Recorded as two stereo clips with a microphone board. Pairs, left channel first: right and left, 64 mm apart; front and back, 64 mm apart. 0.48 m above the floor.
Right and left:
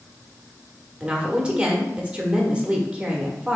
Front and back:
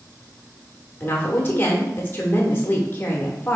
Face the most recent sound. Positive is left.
turn(degrees=30)